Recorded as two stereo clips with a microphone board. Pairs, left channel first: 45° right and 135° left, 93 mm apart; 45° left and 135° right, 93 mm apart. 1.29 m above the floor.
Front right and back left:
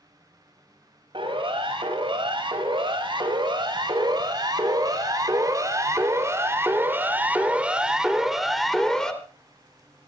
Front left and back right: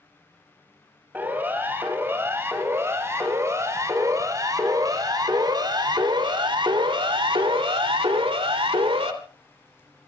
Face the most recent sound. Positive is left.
turn(degrees=-125)